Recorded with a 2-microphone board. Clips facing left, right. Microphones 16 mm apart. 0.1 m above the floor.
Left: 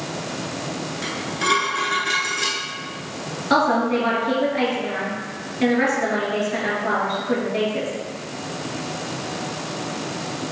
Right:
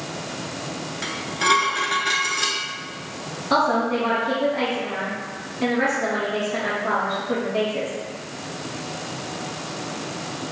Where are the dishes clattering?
15° right (ahead or behind), 0.8 m.